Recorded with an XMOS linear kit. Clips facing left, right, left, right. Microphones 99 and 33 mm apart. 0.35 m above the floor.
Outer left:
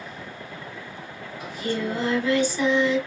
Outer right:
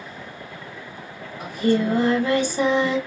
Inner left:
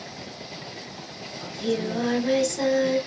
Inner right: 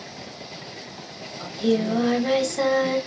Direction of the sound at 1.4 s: 50° right (ahead or behind).